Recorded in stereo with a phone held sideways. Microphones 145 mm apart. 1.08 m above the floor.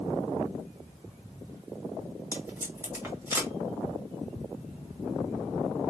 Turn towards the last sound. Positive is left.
turn(degrees=-20)  # may be behind; listen again after turning